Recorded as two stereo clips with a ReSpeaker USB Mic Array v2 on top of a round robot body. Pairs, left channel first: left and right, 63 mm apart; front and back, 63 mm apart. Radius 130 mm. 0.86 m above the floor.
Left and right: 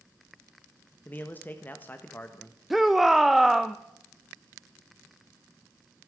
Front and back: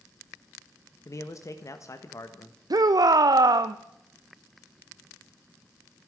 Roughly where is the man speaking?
Ahead left.